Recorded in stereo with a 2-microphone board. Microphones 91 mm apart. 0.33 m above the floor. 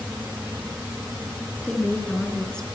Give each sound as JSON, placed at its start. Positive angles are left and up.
{"t": 1.6, "sound": "a woman speaking", "side_deg": 10, "distance_m": 4.5}